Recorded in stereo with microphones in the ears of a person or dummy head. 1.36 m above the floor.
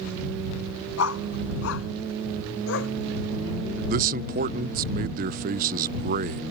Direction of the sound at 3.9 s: 45° right (ahead or behind).